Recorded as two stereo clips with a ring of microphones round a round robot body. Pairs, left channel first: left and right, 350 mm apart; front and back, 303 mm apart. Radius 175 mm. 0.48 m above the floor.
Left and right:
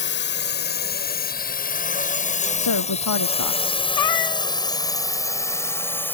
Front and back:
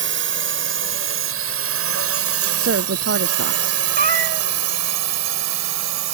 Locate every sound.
0.0 s a drone: 140° left; by 6.1 s 175° left
2.6 s a woman speaking: 135° left
4.0 s a cat meowing: 120° left